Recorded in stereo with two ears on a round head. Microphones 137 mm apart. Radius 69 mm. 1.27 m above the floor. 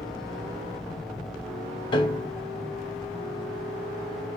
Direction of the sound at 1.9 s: 30° left (ahead or behind).